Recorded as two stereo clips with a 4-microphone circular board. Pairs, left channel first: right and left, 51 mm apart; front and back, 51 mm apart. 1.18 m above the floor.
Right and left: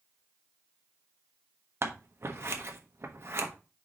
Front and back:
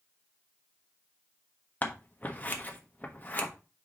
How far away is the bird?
No bird in this recording.